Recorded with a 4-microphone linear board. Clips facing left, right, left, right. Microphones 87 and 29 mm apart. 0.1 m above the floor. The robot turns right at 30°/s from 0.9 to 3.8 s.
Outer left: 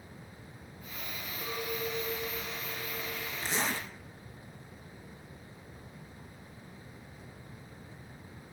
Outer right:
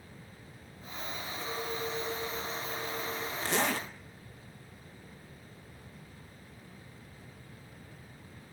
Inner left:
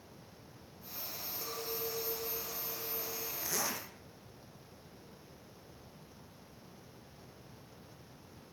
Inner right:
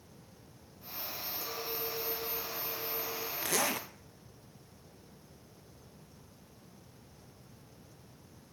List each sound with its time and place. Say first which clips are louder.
1.4 s a clink: outer left 1 dB, even; 165° left, 1.4 m; by 3.3 s 135° right, 1.4 m
3.4 s a zipper: outer right 3 dB, inner right 6 dB; 65° right (ahead or behind), 1.6 m; by 3.9 s 60° right (ahead or behind), 1.6 m